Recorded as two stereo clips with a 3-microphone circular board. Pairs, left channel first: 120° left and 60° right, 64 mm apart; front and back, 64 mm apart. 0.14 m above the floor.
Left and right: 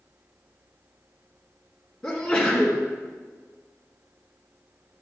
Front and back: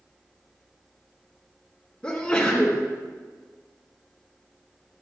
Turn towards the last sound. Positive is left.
turn(degrees=60)